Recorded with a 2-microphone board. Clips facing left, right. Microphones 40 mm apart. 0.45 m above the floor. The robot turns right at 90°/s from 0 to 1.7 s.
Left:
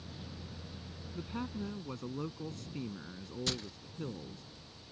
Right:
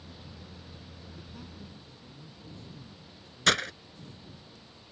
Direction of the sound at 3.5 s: 75° right (ahead or behind).